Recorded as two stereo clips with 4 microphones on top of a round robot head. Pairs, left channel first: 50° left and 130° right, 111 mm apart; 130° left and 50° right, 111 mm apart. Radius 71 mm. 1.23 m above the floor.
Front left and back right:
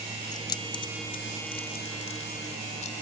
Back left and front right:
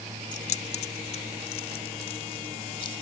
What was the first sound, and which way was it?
Keys jangling, 110° left.